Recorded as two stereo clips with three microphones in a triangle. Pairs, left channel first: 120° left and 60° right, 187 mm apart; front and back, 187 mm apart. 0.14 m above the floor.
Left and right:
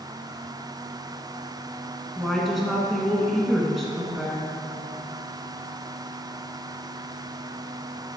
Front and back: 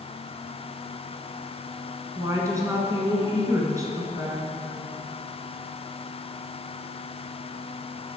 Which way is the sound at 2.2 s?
150° right.